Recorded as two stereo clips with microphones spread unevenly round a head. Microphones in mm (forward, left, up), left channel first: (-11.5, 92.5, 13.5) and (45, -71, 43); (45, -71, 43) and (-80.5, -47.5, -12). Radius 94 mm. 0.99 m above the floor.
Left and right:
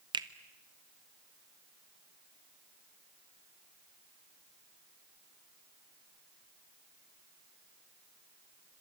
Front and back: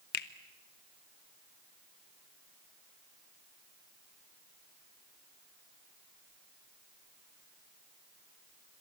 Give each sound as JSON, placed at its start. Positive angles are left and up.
{"t": 0.1, "sound": "a finger snap", "azimuth_deg": 0, "distance_m": 1.2}